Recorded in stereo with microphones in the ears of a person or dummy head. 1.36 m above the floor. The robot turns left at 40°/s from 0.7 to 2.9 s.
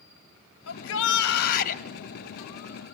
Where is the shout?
85° left, 1.7 m; by 1.8 s 40° left, 1.7 m.